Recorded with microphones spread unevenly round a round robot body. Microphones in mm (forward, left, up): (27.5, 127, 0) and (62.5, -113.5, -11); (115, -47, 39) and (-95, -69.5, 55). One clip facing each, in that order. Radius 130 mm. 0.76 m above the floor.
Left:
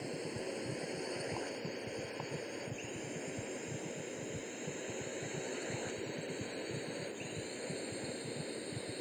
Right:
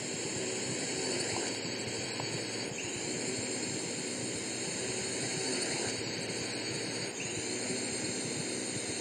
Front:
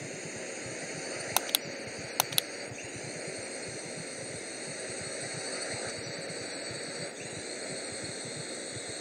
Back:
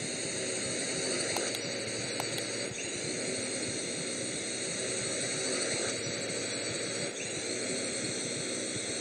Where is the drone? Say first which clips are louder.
Right 3 dB, back 3 dB; 130° right; by 9.0 s 120° right.